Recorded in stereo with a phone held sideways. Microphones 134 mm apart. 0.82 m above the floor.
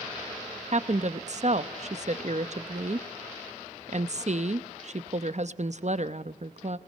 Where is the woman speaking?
55° right (ahead or behind), 0.8 m.